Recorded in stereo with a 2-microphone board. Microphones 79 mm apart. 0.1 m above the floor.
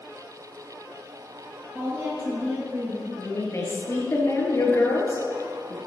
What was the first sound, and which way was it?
A woman speaking, 25° right (ahead or behind).